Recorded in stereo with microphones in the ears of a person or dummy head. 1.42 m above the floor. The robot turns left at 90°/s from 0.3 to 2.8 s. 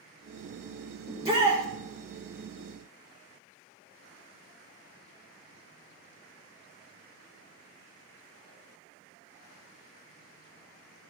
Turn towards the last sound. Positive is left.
turn(degrees=-155)